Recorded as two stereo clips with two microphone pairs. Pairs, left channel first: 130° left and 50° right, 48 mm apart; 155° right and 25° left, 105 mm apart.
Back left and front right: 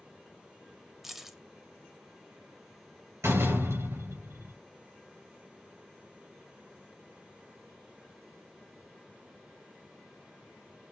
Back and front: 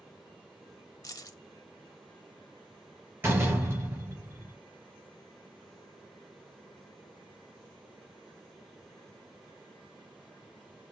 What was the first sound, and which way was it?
Keys jangling, 130° right.